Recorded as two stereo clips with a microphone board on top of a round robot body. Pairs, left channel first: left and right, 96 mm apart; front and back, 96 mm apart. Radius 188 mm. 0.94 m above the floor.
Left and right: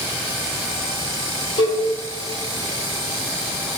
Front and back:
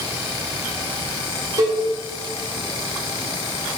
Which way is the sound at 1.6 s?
125° left.